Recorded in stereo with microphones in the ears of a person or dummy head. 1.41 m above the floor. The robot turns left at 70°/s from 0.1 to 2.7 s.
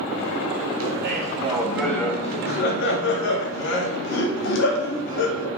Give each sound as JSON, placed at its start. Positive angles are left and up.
{"t": 0.8, "sound": "laughter", "azimuth_deg": -110, "distance_m": 0.6}